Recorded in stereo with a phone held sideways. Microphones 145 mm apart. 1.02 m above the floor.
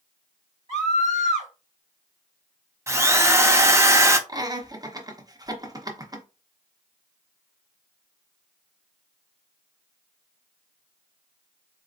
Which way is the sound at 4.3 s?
25° right (ahead or behind).